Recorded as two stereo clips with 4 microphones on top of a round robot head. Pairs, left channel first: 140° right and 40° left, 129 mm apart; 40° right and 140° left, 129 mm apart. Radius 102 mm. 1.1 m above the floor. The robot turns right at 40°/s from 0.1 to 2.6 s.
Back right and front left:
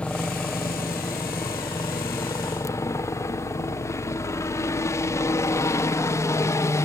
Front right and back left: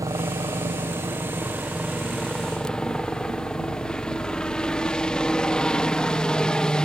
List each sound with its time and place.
0.0 s a helicopter: 150° left; by 6.9 s 110° right